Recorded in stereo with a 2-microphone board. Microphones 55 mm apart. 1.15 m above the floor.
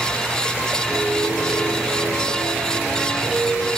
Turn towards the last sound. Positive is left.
turn(degrees=40)  # may be behind; listen again after turning